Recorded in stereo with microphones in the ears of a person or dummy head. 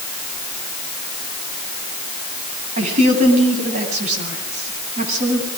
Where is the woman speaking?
50° right (ahead or behind), 9.5 m.